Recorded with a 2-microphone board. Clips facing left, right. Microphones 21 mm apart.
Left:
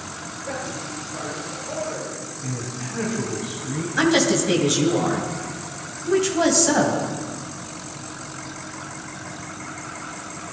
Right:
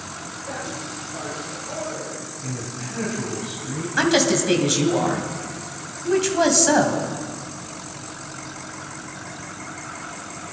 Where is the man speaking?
10° left (ahead or behind), 4.5 m.